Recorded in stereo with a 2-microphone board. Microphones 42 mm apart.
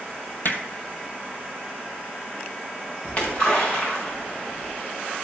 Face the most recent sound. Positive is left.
turn(degrees=35)  # may be behind; listen again after turning